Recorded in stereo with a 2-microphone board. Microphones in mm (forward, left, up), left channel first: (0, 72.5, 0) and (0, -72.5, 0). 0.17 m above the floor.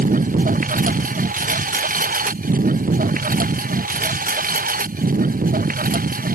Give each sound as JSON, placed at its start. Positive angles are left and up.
{"t": 0.0, "sound": "a lawn mower", "side_deg": -75}